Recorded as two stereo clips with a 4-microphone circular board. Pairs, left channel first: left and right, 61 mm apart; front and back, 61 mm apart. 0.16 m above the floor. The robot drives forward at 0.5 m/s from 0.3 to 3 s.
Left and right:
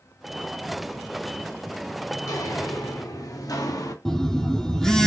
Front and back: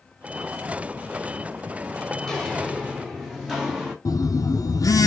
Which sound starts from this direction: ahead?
A phone buzzing, at 4.0 s.